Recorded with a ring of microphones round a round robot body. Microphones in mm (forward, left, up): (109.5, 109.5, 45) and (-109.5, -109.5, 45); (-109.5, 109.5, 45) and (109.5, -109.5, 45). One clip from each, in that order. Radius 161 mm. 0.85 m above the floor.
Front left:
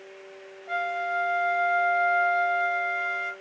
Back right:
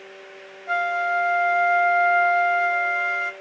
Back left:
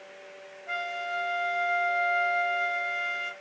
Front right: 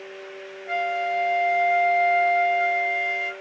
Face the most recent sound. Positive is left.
turn(degrees=-125)